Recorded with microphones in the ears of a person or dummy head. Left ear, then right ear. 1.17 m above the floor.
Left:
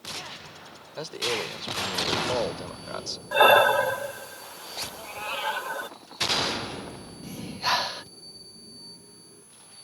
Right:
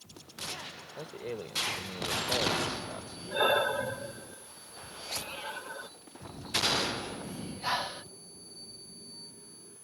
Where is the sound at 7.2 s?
15° left (ahead or behind).